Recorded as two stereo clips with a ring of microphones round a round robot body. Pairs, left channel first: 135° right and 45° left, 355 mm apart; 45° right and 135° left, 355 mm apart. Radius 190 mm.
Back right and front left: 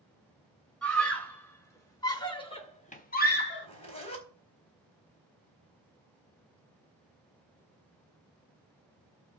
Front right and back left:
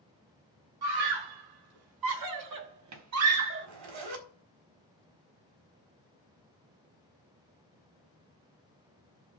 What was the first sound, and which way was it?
A scream, 140° left.